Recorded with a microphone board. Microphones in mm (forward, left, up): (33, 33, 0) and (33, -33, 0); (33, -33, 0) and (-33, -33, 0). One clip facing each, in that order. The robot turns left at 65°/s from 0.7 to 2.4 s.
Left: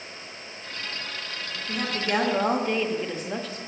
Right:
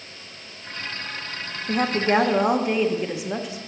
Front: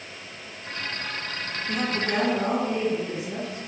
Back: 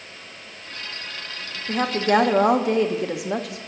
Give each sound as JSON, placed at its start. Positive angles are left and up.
{"t": 1.7, "sound": "a woman speaking", "azimuth_deg": -120, "distance_m": 0.8}